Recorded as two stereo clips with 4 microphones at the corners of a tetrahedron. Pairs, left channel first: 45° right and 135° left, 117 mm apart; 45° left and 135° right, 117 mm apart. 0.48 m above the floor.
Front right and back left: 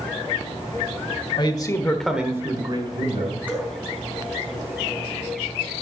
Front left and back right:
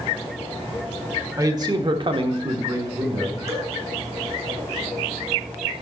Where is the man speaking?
80° right, 1.5 m; by 3.5 s 155° left, 2.5 m.